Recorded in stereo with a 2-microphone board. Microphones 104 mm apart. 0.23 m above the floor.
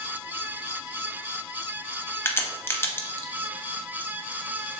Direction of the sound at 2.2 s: 20° left (ahead or behind).